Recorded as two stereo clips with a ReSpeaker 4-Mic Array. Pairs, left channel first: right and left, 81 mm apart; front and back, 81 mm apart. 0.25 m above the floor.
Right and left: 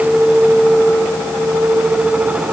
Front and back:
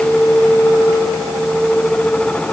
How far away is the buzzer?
No buzzer in this recording.